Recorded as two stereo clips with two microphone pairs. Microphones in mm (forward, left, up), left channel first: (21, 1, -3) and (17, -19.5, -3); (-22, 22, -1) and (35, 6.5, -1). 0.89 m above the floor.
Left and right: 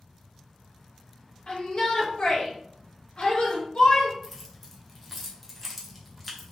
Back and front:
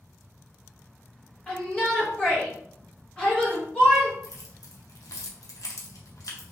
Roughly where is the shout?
Left.